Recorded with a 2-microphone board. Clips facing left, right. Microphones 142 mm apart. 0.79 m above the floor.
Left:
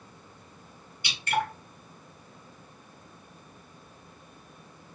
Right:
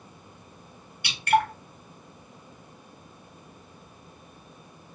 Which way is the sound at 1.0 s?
65° right (ahead or behind).